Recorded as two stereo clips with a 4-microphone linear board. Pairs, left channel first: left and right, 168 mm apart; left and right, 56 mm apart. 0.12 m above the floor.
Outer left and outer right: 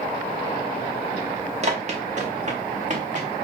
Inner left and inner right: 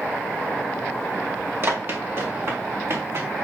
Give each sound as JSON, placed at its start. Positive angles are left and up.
{"t": 1.6, "sound": "running footsteps", "side_deg": -40, "distance_m": 3.0}